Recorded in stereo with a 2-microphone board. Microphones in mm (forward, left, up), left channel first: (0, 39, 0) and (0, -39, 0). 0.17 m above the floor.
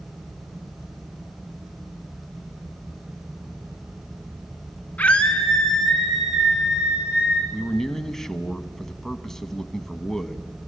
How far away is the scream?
About 2 m.